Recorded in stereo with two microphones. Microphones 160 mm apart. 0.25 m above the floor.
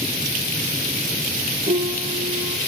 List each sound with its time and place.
1.7 s a piano: 45° right (ahead or behind), 4 m